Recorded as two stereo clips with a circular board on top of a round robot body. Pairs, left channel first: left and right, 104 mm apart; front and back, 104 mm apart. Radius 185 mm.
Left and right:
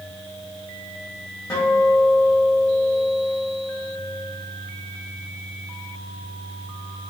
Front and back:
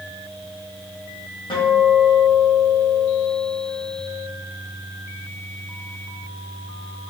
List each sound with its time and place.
1.5 s a guitar: 35° left, 3 m